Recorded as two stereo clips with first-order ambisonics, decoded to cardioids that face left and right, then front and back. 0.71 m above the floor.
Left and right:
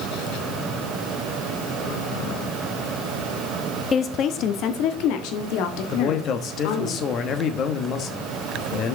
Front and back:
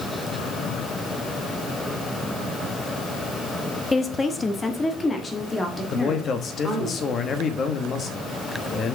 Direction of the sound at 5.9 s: 50° left.